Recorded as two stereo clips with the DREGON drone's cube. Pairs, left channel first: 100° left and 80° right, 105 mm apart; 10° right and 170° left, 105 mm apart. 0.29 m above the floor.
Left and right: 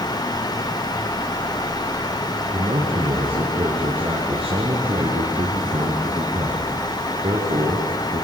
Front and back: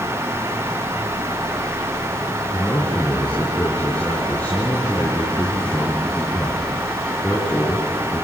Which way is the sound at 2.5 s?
85° right.